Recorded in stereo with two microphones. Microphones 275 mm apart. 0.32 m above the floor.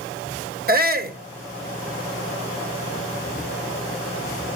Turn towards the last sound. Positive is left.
turn(degrees=-35)  # may be behind; listen again after turning